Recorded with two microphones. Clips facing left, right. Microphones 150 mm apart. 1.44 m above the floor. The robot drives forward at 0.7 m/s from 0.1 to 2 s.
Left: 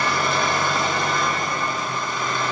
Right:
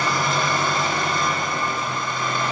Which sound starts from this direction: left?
An engine running, at 0.0 s.